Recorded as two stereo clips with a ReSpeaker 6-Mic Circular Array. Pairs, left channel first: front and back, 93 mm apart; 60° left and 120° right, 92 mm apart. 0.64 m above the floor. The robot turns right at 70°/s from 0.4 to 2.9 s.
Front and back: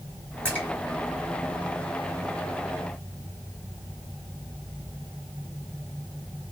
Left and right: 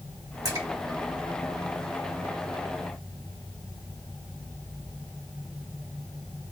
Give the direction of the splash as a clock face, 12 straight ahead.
3 o'clock.